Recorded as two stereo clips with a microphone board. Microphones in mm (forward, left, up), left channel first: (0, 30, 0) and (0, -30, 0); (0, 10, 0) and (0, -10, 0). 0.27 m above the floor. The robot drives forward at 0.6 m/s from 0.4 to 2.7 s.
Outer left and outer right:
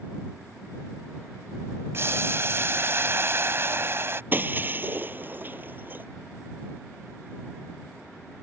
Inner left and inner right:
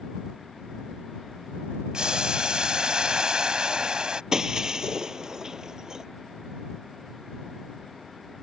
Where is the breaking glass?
35° right (ahead or behind).